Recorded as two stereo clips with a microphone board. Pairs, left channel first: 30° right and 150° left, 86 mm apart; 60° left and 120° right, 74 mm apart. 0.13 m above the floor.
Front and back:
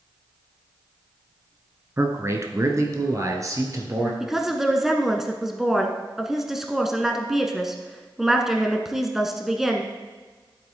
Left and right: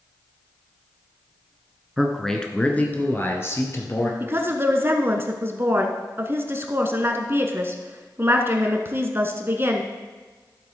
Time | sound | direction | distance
2.0 | a man speaking | 160° left | 1.2 m
4.2 | a woman speaking | 130° right | 1.1 m